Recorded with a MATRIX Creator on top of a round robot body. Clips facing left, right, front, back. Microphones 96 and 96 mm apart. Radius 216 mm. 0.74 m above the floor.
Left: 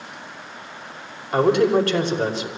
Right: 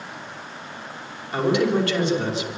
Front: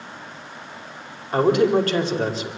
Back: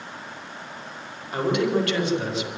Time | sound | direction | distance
1.3 | a man speaking | 50° left | 5 m